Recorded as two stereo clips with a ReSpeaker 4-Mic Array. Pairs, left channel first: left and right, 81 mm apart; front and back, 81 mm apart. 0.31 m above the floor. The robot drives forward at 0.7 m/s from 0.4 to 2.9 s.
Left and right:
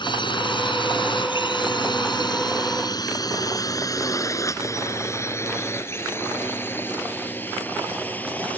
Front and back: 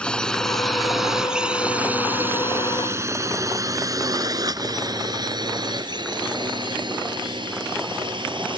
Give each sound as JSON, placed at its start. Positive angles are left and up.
{"t": 0.0, "sound": "a drone", "azimuth_deg": 80}